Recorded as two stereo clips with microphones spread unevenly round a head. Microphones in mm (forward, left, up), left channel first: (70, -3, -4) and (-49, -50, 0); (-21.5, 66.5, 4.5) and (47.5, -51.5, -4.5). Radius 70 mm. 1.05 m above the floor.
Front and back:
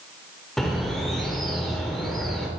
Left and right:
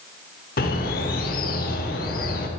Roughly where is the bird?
Left.